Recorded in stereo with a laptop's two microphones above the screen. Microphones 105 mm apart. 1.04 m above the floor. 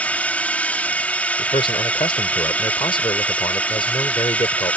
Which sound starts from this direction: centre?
A drone, at 0.0 s.